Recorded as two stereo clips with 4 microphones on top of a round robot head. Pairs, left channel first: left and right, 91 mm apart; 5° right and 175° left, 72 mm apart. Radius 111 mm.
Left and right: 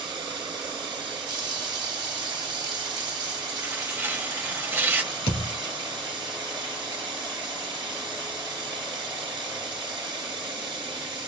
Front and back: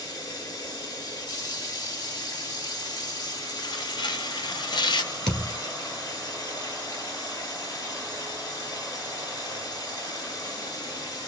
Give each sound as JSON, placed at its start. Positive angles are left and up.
{"t": 0.0, "sound": "running water", "azimuth_deg": -50, "distance_m": 1.4}
{"t": 3.6, "sound": "tearing paper", "azimuth_deg": -20, "distance_m": 0.8}
{"t": 5.3, "sound": "a thud", "azimuth_deg": 75, "distance_m": 2.0}